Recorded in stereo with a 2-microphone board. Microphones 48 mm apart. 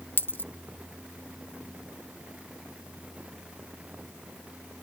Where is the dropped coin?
40° left (ahead or behind).